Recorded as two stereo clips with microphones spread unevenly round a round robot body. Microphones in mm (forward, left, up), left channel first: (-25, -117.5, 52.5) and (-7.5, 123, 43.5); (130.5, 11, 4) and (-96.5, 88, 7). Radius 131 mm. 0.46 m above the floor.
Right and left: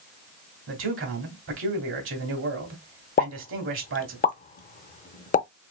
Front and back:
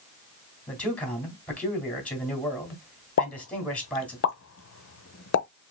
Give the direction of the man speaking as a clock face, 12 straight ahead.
10 o'clock.